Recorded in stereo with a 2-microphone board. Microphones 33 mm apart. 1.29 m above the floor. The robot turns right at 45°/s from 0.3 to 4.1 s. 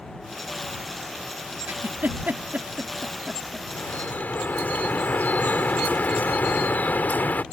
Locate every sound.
1.7 s a giggle: 85° right; by 3.7 s centre (ahead or behind)
3.7 s dripping: 70° left (ahead or behind); by 7.4 s 65° left (ahead or behind)